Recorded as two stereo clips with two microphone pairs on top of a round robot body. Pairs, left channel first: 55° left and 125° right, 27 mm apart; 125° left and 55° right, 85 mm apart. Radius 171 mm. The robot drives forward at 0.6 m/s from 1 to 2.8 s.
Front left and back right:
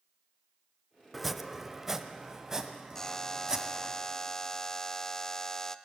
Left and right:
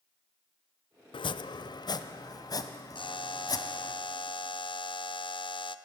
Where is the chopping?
145° left, 0.5 m; by 4.0 s 170° left, 1.5 m.